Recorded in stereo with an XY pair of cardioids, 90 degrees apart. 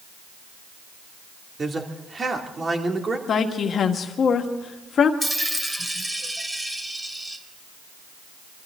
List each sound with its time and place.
1.6 s a man speaking: 35° right, 2.5 m
3.3 s a woman speaking: 60° left, 1.7 m
5.2 s a dropped coin: 20° right, 2.5 m